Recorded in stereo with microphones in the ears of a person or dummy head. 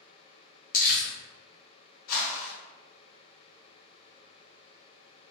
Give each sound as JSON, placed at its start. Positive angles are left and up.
{"t": 0.7, "sound": "crumpling", "side_deg": 40, "distance_m": 0.8}
{"t": 2.1, "sound": "a whoosh", "side_deg": 55, "distance_m": 1.1}